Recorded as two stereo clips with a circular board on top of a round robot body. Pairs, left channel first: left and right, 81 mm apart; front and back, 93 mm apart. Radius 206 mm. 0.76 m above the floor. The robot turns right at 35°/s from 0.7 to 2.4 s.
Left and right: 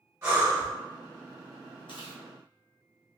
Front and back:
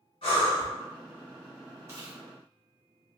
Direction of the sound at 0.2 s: 35° right.